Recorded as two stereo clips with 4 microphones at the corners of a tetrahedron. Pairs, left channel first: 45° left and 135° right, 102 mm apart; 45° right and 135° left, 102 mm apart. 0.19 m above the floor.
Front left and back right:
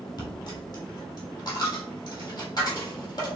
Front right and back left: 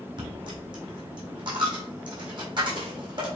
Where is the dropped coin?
95° left, 1.5 m.